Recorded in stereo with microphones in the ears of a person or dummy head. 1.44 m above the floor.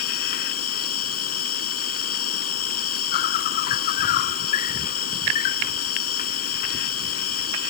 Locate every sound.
0.0 s an insect: 50° left (ahead or behind)